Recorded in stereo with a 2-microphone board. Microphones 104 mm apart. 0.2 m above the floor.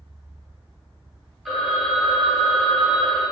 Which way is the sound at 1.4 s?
5° right (ahead or behind).